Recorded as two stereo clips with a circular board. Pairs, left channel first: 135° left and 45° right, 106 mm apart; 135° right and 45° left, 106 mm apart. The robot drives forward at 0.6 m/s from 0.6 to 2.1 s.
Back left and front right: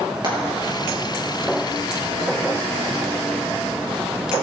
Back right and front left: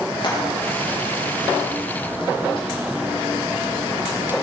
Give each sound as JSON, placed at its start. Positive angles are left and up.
{"t": 0.2, "sound": "frying", "azimuth_deg": -90, "distance_m": 3.5}